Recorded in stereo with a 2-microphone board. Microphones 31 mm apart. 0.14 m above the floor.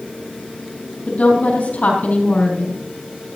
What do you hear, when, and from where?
1.1 s a woman speaking: 55° left (ahead or behind), 4 m